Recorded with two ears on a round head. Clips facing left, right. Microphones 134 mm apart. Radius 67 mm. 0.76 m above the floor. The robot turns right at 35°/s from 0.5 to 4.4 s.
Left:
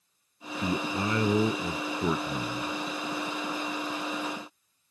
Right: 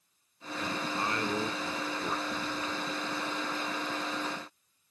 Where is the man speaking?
60° left; by 2.7 s 135° left.